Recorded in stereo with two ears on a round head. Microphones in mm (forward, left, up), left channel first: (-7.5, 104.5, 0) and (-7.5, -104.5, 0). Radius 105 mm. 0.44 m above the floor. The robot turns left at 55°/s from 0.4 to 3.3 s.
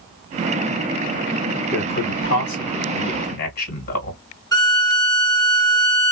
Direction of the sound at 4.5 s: 15° left (ahead or behind).